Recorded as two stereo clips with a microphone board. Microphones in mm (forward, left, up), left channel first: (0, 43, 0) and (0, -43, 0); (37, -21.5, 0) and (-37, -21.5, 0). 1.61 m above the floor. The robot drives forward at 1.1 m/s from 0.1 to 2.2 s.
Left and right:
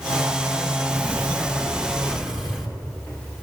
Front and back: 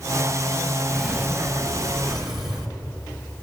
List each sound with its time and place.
0.9 s a sliding door: 40° right, 0.5 m; by 2.7 s 175° right, 1.4 m